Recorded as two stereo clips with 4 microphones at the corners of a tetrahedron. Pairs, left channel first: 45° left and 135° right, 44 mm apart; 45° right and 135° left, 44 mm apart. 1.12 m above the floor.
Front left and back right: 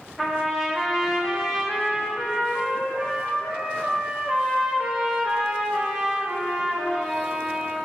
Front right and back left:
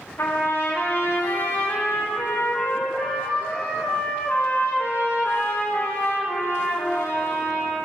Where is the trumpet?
45° right, 1.2 m.